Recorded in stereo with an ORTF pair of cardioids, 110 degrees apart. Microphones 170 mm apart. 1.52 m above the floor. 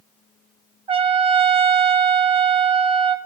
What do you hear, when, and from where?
0.9 s a trumpet: 35° right, 1.0 m